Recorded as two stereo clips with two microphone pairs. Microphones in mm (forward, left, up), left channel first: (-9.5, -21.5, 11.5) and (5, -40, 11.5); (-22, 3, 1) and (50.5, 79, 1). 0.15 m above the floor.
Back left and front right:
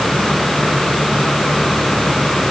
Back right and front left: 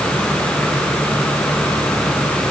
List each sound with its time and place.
Only background noise.